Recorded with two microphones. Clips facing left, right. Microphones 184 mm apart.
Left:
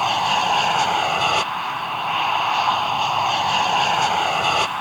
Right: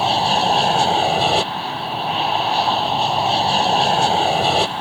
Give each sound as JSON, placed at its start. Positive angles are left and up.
{"t": 0.0, "sound": "an aircraft", "side_deg": -30}